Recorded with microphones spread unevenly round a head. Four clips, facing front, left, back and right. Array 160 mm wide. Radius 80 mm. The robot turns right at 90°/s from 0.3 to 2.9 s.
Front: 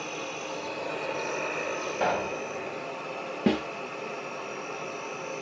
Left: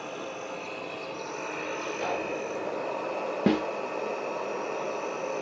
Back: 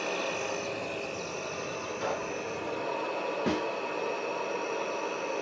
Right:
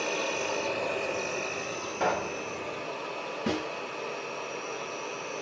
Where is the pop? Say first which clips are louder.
Right 4 dB, front 6 dB; 45° right, 0.8 m; by 2.4 s 10° right, 0.8 m.